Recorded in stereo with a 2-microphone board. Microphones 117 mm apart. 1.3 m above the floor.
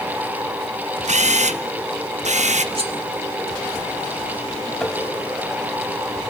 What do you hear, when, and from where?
1.1 s a camera shutter: 80° right, 0.9 m
2.8 s cutlery clinking: 60° right (ahead or behind), 2.0 m
4.8 s tapping: 5° left (ahead or behind), 1.6 m